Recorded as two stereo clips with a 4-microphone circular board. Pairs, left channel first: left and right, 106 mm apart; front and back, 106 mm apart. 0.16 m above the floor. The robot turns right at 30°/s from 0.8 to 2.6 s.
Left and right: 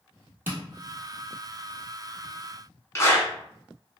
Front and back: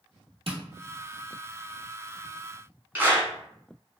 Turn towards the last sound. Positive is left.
turn(degrees=125)